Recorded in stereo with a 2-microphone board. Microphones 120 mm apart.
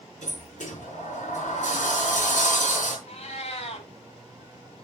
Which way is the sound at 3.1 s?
60° left (ahead or behind).